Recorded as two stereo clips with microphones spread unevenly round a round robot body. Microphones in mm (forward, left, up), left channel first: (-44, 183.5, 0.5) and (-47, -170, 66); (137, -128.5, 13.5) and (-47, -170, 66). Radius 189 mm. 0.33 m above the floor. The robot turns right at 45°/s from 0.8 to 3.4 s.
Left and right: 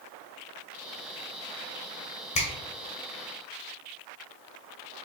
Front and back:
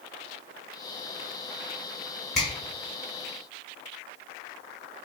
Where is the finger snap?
70° left, 1.2 m; by 2.5 s 75° left, 1.2 m.